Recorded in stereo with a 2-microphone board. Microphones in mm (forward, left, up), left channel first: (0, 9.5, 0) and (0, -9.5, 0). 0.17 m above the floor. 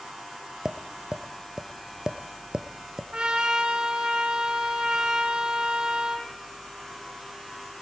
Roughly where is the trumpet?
Right.